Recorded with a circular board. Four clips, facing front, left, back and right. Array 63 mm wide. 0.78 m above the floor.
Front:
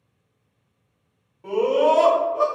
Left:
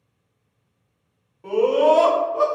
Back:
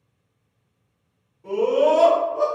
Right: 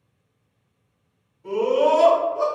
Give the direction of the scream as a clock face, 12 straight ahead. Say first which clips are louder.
Left 2 dB, even; 10 o'clock.